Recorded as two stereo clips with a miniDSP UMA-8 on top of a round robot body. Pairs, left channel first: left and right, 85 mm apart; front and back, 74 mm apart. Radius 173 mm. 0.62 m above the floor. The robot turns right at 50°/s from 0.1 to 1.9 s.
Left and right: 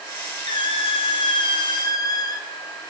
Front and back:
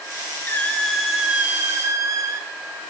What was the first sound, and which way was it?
A squeak, 65° left.